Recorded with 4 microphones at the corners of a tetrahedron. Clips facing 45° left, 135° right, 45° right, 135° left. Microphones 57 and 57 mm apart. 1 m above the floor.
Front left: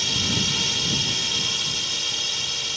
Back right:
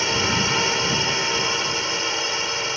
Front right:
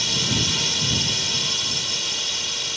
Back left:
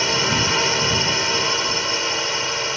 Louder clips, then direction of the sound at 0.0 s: Back right 5 dB, back left 6 dB; straight behind.